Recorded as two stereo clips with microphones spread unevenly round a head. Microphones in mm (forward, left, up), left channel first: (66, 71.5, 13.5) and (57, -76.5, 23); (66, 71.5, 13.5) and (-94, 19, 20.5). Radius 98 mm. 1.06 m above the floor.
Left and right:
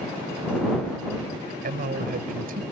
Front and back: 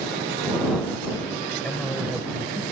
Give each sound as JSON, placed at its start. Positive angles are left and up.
{"t": 1.6, "sound": "a man speaking", "azimuth_deg": -70}